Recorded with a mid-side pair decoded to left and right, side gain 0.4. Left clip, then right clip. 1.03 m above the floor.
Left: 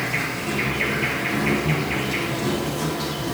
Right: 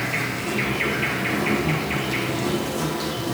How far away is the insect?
About 1.4 m.